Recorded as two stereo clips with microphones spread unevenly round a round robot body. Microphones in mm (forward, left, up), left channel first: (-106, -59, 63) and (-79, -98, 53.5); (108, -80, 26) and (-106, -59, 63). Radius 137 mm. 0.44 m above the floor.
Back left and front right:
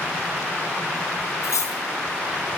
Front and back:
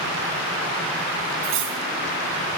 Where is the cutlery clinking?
130° left, 3.5 m.